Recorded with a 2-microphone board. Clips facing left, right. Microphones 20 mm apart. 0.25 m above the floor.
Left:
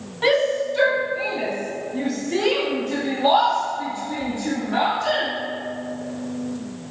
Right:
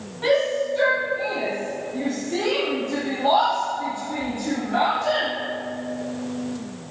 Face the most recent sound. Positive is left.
turn(degrees=50)  # may be behind; listen again after turning